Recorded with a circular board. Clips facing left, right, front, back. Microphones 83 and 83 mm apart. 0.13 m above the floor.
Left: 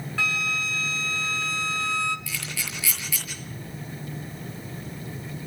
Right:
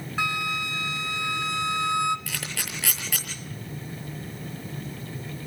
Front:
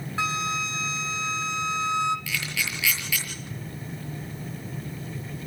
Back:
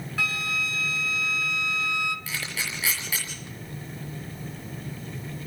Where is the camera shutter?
120° right, 6.5 m.